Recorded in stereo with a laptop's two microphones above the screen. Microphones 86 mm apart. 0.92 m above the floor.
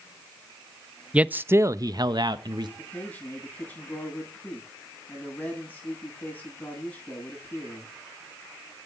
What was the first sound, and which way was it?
A man speaking, 15° right (ahead or behind).